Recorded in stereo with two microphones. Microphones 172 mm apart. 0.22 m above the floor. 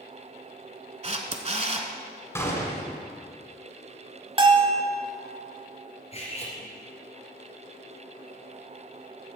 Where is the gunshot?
15° left (ahead or behind), 1.9 m.